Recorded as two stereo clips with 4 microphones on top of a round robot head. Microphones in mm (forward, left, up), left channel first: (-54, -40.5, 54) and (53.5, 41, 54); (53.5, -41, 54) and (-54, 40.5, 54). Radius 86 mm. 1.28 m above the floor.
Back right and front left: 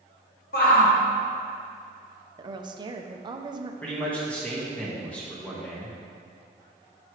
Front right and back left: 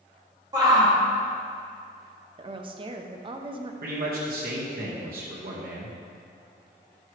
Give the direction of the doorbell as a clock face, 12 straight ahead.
I don't hear a doorbell.